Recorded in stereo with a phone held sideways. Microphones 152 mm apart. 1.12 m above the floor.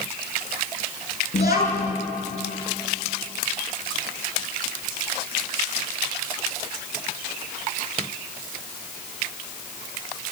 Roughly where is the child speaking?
Left.